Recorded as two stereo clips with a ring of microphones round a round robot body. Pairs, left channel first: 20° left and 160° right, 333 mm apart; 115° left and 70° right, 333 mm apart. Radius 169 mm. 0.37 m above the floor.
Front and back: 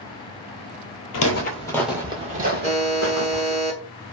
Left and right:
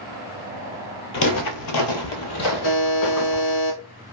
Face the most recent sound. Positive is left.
turn(degrees=160)